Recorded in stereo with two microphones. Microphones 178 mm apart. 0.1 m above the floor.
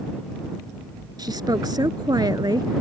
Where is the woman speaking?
20° right (ahead or behind).